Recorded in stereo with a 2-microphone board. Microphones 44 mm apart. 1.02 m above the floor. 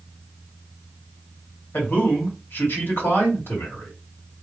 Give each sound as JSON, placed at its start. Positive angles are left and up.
{"t": 1.7, "sound": "a man speaking", "side_deg": 60, "distance_m": 2.0}